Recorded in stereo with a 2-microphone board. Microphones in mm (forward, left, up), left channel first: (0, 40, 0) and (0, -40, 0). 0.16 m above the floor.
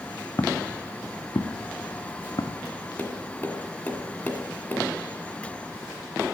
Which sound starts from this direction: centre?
Tapping, at 3.0 s.